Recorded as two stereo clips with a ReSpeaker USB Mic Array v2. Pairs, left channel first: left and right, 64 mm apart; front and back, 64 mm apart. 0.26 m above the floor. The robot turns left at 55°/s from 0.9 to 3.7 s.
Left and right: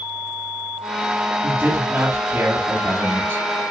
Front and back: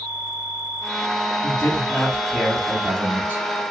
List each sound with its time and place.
1.4 s a man speaking: 30° right, 2 m; by 3.4 s 140° right, 2 m